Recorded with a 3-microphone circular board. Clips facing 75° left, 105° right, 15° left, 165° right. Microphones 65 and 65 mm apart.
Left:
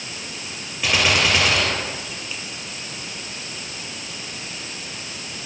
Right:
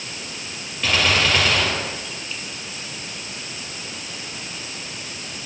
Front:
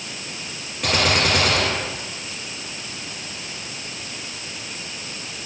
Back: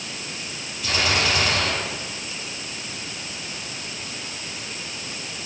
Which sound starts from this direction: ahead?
A gunshot, at 0.8 s.